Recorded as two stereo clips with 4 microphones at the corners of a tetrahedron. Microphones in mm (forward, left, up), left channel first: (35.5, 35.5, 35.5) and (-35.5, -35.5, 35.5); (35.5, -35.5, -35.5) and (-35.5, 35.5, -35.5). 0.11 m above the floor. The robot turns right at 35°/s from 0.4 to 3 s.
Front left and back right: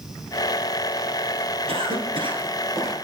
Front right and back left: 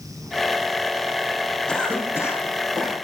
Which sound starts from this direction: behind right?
A cough, at 1.7 s.